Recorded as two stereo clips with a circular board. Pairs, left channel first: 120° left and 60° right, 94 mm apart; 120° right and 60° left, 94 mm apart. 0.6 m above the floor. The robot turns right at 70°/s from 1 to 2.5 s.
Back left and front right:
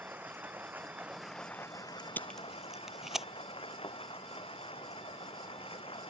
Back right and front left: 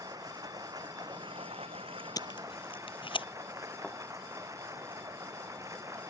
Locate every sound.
0.0 s running water: 10° left; by 6.1 s 115° left
2.2 s tape being pulled: 170° right; by 3.3 s 145° right
3.8 s a thud: 155° left